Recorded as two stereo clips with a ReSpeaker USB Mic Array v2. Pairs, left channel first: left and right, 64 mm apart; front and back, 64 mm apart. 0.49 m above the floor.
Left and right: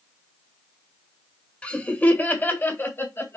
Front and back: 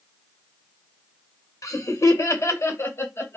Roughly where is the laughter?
Ahead.